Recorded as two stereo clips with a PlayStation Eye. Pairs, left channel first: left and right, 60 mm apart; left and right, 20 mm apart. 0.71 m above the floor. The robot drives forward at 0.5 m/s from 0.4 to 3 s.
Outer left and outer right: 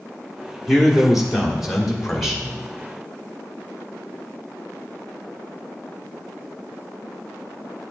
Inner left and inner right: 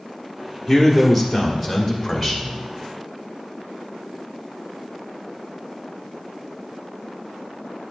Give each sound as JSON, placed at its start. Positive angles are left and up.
{"t": 0.7, "sound": "a man speaking", "side_deg": -5, "distance_m": 1.7}